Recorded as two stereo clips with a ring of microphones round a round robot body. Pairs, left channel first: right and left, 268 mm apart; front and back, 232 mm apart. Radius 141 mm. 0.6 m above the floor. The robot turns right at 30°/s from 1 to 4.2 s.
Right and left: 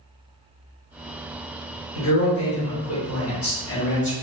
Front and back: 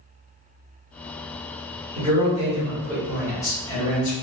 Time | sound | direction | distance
1.9 | a man speaking | 115° right | 1.2 m